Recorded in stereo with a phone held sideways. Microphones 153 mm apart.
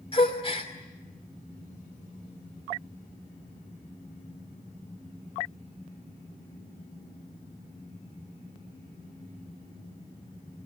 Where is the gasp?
35° left (ahead or behind), 2.5 m.